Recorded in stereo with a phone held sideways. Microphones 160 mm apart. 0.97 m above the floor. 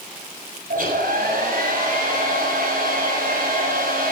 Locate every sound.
0.7 s a hair dryer: 65° right (ahead or behind), 7 m